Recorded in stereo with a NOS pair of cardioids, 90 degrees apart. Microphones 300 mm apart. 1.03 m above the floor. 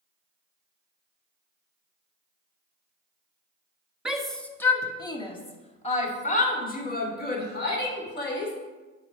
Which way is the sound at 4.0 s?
Straight ahead.